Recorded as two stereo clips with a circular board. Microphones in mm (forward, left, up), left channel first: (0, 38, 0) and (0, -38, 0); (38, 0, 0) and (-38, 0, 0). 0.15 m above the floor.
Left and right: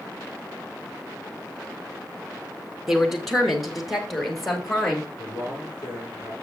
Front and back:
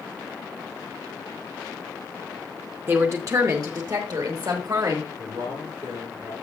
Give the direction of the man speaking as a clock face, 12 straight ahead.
6 o'clock.